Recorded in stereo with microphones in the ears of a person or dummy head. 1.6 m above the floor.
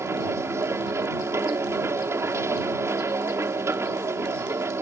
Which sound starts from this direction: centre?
A machine running, at 0.0 s.